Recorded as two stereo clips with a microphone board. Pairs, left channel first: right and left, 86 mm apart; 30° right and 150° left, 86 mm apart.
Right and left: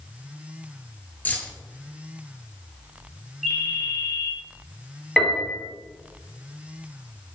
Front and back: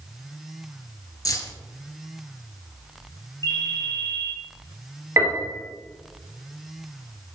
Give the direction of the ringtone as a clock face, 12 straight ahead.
6 o'clock.